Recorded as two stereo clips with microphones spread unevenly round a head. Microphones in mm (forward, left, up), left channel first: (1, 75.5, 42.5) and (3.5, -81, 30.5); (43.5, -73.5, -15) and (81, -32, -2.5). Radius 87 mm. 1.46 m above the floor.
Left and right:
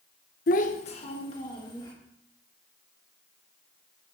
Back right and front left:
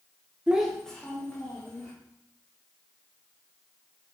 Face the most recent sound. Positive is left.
turn(degrees=155)